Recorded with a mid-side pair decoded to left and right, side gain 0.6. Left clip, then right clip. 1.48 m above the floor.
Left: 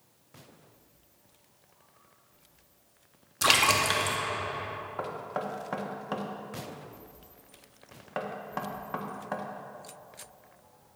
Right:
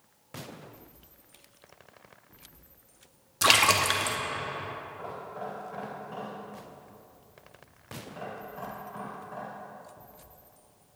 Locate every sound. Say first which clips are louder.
3.4 s a splash: right 1 dB; 15° right, 1.0 m
5.0 s knocking: left 4 dB; 70° left, 1.4 m